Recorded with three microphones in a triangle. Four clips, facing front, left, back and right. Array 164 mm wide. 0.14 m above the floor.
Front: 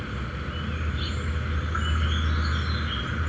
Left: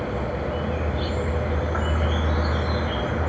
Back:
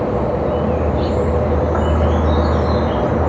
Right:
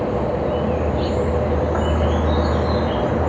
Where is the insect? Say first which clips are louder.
Right 7 dB, back 18 dB; 150° right.